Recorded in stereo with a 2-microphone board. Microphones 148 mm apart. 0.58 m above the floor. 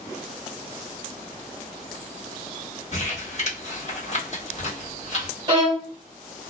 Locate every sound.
2.9 s crumpling: 45° left (ahead or behind), 1.6 m
5.5 s a violin: 30° right (ahead or behind), 1.3 m